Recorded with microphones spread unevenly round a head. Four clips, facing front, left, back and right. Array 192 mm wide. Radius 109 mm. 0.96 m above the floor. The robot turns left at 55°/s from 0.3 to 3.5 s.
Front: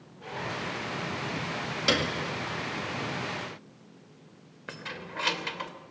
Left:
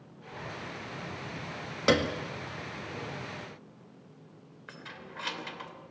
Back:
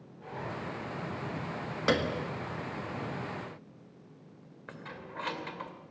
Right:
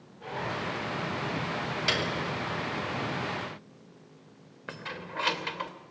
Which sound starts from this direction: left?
A piano, at 1.9 s.